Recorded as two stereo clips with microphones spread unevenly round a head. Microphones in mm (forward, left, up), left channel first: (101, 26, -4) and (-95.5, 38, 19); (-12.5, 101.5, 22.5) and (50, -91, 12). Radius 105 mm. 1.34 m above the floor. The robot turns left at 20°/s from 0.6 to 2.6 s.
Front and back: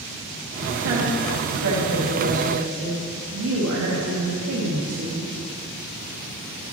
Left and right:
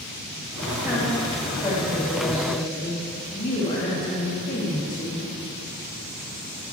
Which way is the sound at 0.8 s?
160° right.